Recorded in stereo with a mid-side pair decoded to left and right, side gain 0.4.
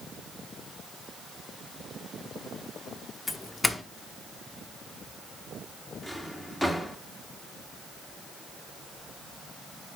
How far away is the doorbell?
About 1.0 m.